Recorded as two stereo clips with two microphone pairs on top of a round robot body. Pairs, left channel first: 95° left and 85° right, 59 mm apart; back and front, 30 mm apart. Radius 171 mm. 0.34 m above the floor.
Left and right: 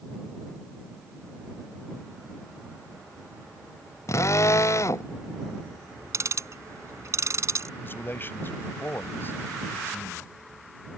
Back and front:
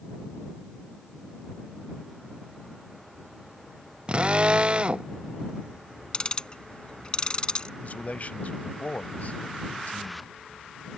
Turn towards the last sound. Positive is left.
turn(degrees=150)